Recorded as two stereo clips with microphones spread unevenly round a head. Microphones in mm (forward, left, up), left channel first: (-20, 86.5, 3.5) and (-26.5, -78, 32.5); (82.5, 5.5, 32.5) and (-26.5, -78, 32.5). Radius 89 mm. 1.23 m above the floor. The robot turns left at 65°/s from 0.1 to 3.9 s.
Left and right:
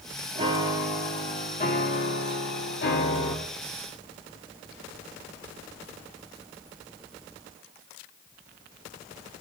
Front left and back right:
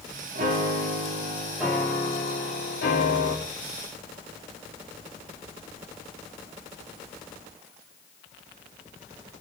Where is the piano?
145° right, 2 m; by 3.4 s 20° left, 2 m.